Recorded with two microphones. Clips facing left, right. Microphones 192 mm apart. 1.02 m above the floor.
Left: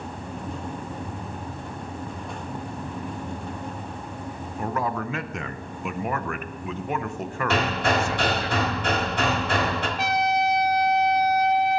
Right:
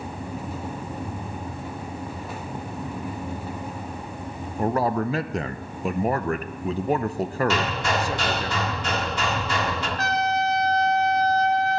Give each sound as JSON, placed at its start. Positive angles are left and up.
{"t": 4.6, "sound": "a man speaking", "side_deg": -35, "distance_m": 0.6}
{"t": 7.5, "sound": "hammering", "side_deg": 55, "distance_m": 1.8}
{"t": 10.0, "sound": "a trumpet", "side_deg": 15, "distance_m": 1.0}